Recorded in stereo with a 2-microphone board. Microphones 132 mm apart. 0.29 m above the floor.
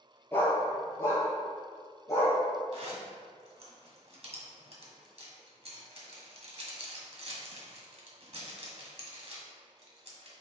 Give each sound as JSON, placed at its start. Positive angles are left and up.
{"t": 0.3, "sound": "a dog barking", "side_deg": 15, "distance_m": 1.5}
{"t": 2.7, "sound": "a zipper", "side_deg": -55, "distance_m": 1.5}